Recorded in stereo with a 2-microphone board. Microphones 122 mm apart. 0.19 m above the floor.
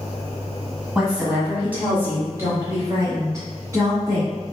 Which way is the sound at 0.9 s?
10° right (ahead or behind).